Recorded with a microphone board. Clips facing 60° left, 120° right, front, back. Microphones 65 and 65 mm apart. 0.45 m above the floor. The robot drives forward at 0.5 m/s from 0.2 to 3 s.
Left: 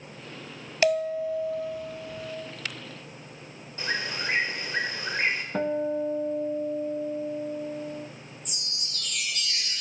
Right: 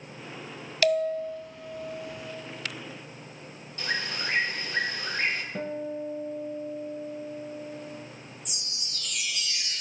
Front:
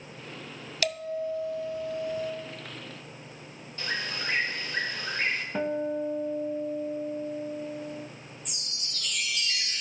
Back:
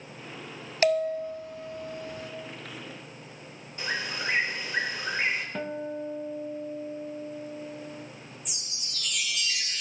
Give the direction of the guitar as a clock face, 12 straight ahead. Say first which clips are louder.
Left 6 dB, front 4 dB; 10 o'clock.